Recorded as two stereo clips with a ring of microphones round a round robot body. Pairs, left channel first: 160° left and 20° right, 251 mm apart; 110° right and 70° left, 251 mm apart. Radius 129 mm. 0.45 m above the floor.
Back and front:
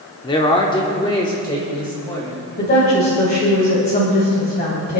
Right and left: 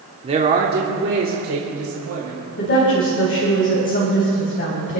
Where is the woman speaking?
155° right, 3 m.